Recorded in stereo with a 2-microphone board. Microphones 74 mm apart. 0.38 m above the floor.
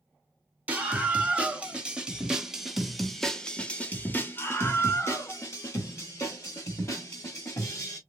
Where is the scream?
20° right (ahead or behind), 2 m; by 8.0 s 40° left (ahead or behind), 2.5 m.